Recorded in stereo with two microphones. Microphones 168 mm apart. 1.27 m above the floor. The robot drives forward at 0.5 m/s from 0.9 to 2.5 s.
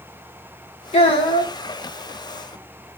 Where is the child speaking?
35° left (ahead or behind), 1.1 m; by 1.5 s 30° left (ahead or behind), 1.3 m.